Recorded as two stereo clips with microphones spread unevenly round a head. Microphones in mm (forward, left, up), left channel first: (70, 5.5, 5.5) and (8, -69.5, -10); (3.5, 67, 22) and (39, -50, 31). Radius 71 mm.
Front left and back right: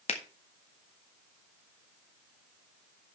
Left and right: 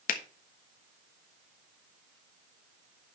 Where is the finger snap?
95° left, 1.4 m.